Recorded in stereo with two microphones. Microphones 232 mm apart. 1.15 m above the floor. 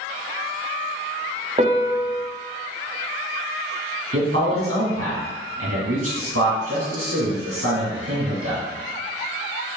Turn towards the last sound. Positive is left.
turn(degrees=-65)  # may be behind; listen again after turning